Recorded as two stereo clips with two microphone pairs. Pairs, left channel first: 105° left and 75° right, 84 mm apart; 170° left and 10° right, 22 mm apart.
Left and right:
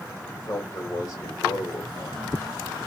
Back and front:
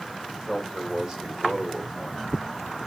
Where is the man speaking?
60° left, 3.5 m.